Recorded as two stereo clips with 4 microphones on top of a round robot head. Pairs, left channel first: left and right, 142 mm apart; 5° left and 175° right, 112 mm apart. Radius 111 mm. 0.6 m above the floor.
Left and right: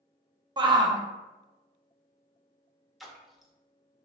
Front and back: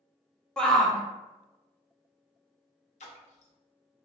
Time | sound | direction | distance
0.6 | a shout | 75° right | 0.9 m
3.0 | a splash | straight ahead | 0.8 m